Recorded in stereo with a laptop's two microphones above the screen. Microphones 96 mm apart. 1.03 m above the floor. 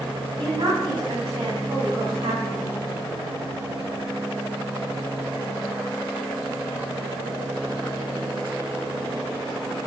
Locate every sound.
0.4 s a woman speaking: 65° right (ahead or behind), 8.5 m; by 2.7 s 75° right (ahead or behind), 7.5 m